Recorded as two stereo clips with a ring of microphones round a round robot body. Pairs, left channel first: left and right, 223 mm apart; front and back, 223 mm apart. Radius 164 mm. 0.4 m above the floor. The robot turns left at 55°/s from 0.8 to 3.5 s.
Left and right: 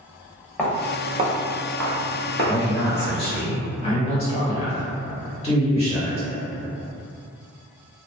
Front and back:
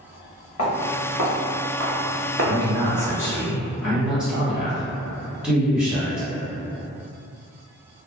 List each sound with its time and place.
0.6 s footsteps: 5° left, 1.7 m; by 3.1 s 135° left, 1.1 m
2.4 s a man speaking: 155° left, 1.6 m; by 6.3 s 95° left, 1.6 m